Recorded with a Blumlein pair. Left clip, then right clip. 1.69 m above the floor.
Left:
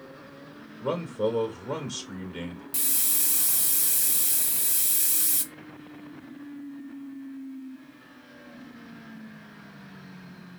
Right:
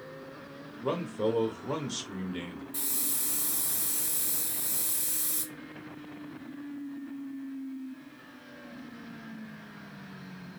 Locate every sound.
0.8 s a man speaking: straight ahead, 1.4 m
2.7 s a hiss: 55° left, 0.7 m